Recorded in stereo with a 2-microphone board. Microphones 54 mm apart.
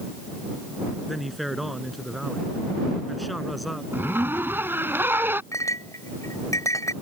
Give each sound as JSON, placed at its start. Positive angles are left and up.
{"t": 1.1, "sound": "a man speaking", "side_deg": 0}
{"t": 3.9, "sound": "a zipper", "side_deg": -40}
{"t": 5.5, "sound": "a clink", "side_deg": 75}